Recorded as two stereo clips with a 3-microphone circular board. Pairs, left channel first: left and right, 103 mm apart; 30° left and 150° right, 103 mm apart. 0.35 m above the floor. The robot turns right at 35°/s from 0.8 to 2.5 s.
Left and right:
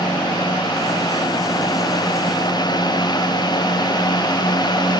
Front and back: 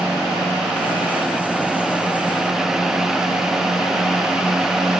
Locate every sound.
Only background noise.